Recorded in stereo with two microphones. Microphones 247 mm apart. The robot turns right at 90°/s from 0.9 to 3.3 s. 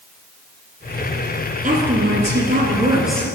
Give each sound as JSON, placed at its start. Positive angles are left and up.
{"t": 1.6, "sound": "a woman speaking", "azimuth_deg": -135, "distance_m": 1.5}